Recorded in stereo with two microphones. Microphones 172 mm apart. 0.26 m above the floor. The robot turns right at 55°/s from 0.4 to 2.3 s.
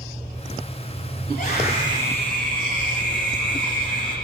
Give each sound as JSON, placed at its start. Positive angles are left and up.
{"t": 1.3, "sound": "a scream", "azimuth_deg": 120, "distance_m": 4.5}